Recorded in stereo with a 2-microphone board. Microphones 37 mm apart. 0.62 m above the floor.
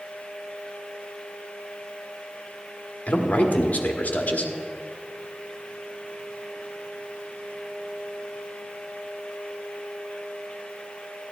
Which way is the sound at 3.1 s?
40° left (ahead or behind).